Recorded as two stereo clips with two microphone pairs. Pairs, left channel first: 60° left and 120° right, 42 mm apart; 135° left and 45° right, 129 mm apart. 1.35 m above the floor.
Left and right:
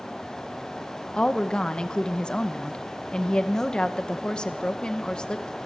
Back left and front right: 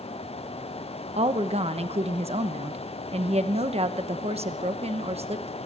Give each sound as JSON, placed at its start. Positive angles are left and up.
{"t": 1.1, "sound": "a woman speaking", "azimuth_deg": -10, "distance_m": 1.1}